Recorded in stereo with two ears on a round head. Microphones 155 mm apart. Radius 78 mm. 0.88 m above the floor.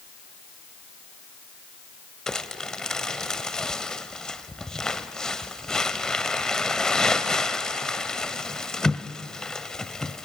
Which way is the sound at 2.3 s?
5° left (ahead or behind).